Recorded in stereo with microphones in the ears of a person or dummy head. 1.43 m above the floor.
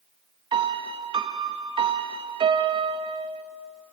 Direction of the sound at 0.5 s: 20° right (ahead or behind).